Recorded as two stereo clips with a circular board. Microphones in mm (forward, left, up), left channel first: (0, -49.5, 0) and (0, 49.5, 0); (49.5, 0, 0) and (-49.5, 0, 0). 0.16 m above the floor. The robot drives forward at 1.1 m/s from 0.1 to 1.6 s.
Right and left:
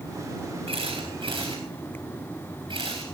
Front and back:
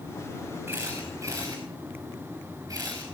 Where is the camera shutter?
115° left, 3.5 m; by 3.0 s 125° left, 4 m.